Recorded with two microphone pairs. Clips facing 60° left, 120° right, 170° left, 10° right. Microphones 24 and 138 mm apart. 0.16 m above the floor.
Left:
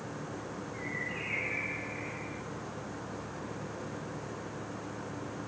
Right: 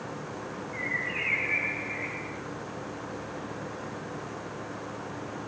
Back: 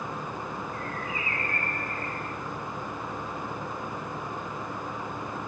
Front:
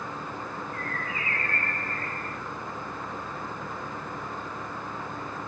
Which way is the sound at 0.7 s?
125° right.